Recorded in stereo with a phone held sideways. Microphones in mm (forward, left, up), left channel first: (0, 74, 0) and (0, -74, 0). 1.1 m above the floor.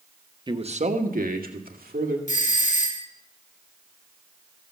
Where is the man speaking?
30° right (ahead or behind), 1.0 m; by 2.2 s 85° right, 3 m.